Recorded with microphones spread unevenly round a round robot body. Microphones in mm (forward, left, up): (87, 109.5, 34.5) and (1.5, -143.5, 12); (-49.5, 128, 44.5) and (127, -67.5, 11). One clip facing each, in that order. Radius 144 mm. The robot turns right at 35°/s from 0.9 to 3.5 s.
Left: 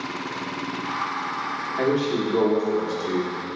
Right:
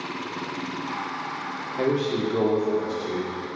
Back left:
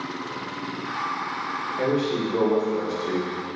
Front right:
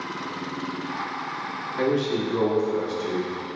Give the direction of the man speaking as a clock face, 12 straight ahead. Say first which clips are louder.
Left 1 dB, even; 1 o'clock.